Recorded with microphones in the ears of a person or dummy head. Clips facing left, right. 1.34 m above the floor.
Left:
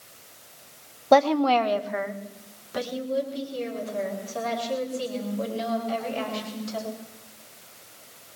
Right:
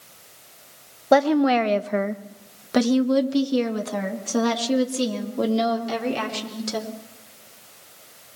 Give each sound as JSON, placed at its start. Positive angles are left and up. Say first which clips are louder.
{"t": 1.1, "sound": "a woman speaking", "louder": "right 2 dB", "side_deg": -5, "distance_m": 0.9}